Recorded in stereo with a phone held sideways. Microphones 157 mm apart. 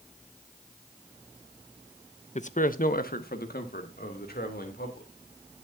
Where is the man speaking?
45° left (ahead or behind), 0.8 m; by 5.1 s 80° left, 4 m.